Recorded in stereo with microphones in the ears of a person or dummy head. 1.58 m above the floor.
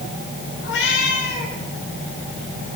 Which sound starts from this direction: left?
A cat meowing, at 0.6 s.